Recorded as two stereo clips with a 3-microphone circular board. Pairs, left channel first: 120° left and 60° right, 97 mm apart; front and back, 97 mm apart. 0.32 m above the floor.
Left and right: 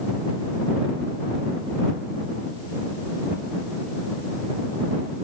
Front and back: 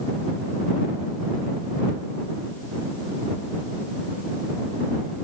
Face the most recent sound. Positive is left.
No sound to turn to.